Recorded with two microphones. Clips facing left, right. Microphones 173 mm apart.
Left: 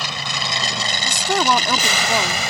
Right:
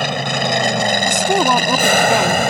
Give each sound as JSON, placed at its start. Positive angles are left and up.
{"t": 0.0, "sound": "an aircraft", "side_deg": -55}
{"t": 1.0, "sound": "a woman speaking", "side_deg": -20}